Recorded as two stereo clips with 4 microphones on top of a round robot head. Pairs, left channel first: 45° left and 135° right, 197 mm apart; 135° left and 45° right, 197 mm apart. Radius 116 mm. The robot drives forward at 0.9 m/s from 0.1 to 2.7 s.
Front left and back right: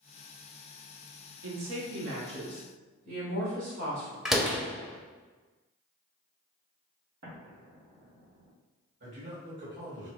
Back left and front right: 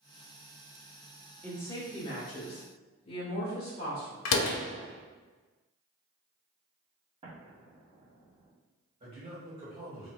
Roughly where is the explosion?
Right.